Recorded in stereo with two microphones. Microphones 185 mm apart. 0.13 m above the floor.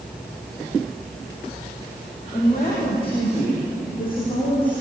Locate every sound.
2.3 s a woman speaking: 30° left (ahead or behind), 7 m